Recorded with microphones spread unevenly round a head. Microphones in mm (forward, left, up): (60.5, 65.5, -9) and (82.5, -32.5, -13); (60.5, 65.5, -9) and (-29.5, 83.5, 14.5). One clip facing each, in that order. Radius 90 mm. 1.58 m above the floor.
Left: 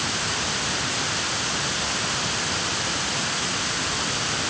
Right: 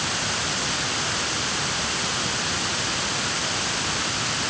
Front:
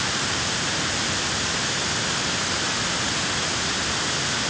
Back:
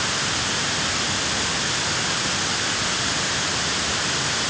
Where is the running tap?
I don't hear a running tap.